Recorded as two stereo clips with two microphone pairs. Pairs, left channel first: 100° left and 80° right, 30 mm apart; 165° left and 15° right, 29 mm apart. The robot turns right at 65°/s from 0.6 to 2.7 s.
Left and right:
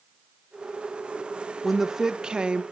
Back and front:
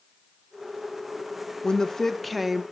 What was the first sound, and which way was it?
A woman speaking, 155° right.